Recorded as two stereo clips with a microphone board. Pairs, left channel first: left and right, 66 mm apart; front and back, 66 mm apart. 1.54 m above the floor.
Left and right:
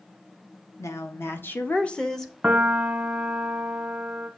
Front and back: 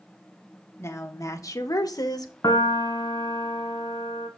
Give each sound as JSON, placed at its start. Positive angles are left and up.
{"t": 0.8, "sound": "a woman speaking", "azimuth_deg": 45, "distance_m": 1.5}
{"t": 2.4, "sound": "a piano", "azimuth_deg": -20, "distance_m": 1.0}